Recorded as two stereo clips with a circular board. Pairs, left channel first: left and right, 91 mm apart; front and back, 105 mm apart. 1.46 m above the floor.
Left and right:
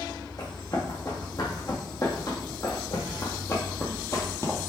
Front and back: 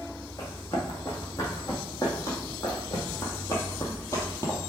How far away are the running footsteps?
About 4 m.